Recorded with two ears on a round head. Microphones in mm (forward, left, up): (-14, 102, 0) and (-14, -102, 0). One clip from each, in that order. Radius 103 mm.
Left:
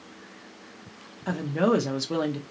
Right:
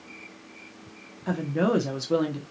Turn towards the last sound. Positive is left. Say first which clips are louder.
# left 1 dB
turn(degrees=15)  # may be behind; listen again after turning